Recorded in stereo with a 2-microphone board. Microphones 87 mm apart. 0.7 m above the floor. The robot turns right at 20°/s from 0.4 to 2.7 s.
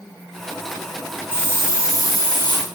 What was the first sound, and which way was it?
A hiss, 25° left (ahead or behind).